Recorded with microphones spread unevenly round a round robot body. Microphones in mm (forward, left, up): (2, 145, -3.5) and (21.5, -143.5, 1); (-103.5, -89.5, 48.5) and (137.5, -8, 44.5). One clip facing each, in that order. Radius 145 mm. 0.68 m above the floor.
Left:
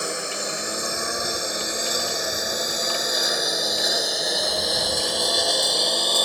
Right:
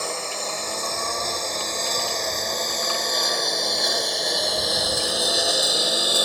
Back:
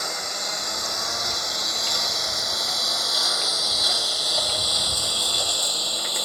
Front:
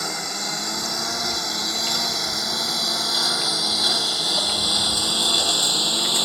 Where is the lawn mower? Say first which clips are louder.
Left 1 dB, front 3 dB; 20° left; by 6.2 s 5° right.